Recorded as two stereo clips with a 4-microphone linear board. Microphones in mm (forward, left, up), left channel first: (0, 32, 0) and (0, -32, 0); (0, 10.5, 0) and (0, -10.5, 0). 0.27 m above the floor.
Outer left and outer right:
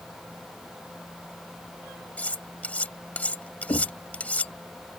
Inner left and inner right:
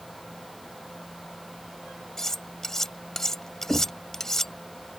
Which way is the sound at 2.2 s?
25° left (ahead or behind).